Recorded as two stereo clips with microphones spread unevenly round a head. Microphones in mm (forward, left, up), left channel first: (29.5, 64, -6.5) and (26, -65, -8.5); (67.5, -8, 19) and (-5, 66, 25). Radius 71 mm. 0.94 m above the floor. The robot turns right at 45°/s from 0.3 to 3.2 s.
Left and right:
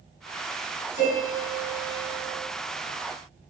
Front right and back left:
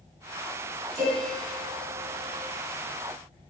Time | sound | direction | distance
0.9 | a piano | 75° left | 1.9 m